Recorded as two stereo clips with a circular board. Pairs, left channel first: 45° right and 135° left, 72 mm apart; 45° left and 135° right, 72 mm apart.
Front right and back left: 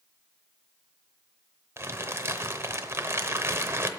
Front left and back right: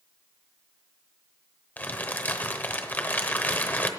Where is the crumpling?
100° left, 0.8 m.